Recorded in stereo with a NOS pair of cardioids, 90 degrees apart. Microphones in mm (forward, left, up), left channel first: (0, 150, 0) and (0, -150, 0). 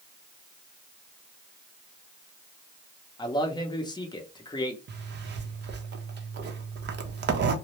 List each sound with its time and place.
3.2 s a man speaking: 15° left, 0.7 m
4.9 s a zipper: 35° right, 0.6 m